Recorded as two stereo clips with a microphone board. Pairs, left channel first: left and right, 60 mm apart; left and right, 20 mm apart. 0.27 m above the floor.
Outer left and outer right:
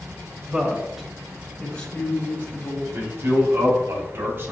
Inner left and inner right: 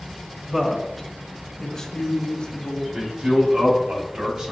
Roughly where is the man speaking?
Right.